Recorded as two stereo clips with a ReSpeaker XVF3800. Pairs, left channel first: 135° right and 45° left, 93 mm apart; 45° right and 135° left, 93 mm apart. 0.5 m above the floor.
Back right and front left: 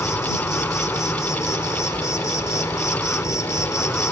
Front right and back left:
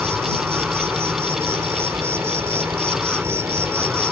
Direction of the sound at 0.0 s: 175° right.